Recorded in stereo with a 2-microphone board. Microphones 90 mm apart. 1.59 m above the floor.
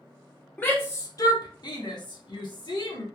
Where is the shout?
20° left (ahead or behind), 0.6 m; by 3.1 s 55° left (ahead or behind), 1.4 m.